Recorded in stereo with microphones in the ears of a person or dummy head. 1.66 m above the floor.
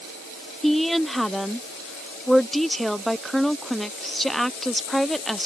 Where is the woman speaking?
Centre (ahead or behind).